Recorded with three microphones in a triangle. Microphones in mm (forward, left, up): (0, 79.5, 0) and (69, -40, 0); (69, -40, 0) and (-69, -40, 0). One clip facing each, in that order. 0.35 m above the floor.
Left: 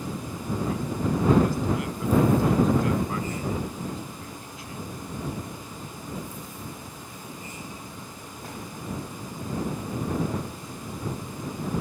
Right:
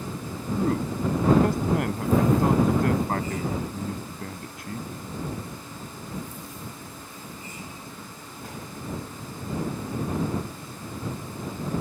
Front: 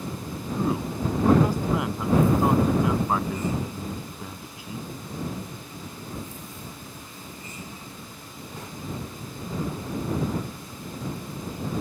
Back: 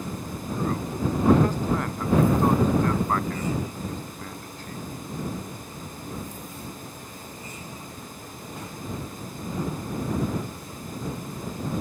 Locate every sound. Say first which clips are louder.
0.6 s a man speaking: right 4 dB, front 1 dB; 80° right